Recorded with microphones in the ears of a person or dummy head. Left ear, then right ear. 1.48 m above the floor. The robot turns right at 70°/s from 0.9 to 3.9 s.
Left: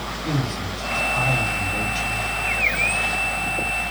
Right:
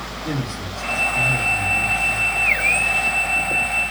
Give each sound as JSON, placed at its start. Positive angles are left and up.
{"t": 0.2, "sound": "a man speaking", "azimuth_deg": -15, "distance_m": 3.0}